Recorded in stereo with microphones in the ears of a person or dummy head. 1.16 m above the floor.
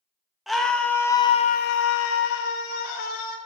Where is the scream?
5° right (ahead or behind), 1.1 m; by 3.4 s 55° left (ahead or behind), 1.3 m.